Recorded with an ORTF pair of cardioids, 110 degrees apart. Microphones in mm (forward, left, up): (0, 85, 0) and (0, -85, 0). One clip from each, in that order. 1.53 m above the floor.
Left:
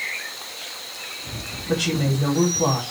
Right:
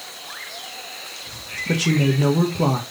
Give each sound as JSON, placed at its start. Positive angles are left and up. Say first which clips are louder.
{"t": 1.7, "sound": "a woman speaking", "louder": "right 2 dB", "azimuth_deg": -50, "distance_m": 1.4}